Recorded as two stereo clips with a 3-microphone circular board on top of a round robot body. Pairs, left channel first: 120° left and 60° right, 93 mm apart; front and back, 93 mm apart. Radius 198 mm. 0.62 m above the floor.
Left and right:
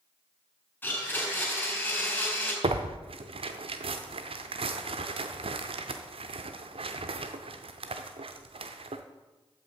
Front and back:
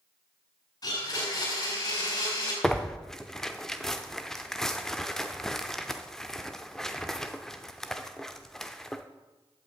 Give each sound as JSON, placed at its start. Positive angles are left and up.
{"t": 0.8, "sound": "a blender", "azimuth_deg": 50, "distance_m": 4.5}
{"t": 2.6, "sound": "tearing paper", "azimuth_deg": -85, "distance_m": 0.5}